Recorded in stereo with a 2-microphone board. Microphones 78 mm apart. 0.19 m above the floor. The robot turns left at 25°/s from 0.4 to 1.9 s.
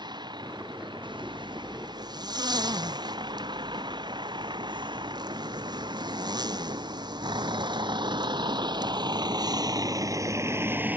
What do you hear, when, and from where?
0.0 s a vehicle: 70° right (ahead or behind); by 11.0 s 20° right (ahead or behind)
1.0 s a zipper: 85° right; by 9.0 s 65° right (ahead or behind)